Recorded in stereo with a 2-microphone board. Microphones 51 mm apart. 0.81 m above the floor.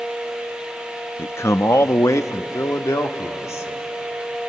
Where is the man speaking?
45° left (ahead or behind), 0.5 m; by 3.8 s 65° left (ahead or behind), 2 m.